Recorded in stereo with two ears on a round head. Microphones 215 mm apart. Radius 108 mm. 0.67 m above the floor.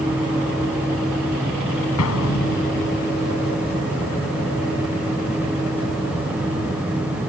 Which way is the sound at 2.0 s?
65° left (ahead or behind).